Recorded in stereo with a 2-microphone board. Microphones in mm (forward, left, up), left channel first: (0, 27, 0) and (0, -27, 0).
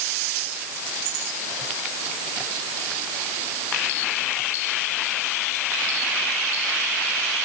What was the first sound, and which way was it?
Only background noise.